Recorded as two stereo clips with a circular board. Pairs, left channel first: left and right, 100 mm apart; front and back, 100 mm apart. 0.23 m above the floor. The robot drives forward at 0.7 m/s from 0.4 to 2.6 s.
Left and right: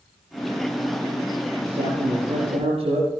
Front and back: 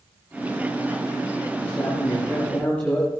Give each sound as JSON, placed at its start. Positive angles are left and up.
{"t": 1.6, "sound": "a man speaking", "azimuth_deg": -70, "distance_m": 6.5}